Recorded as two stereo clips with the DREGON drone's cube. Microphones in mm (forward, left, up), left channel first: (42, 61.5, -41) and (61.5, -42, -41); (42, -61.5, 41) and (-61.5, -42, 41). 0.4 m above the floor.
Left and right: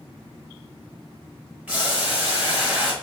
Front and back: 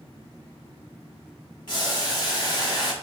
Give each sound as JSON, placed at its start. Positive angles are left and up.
{"t": 1.7, "sound": "boiling", "azimuth_deg": -5, "distance_m": 1.4}